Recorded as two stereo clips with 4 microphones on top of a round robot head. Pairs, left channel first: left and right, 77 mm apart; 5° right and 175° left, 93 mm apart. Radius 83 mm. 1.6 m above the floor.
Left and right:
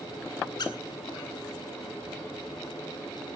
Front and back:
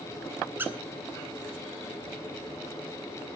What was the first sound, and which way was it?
A squeak, 110° left.